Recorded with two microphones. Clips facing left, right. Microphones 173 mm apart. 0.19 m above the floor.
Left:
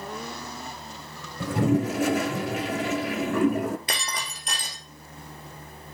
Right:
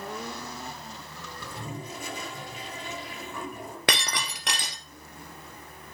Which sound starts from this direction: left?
A toilet flushing, at 1.4 s.